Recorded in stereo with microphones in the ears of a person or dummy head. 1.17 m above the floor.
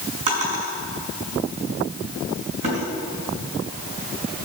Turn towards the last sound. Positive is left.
turn(degrees=-45)  # may be behind; listen again after turning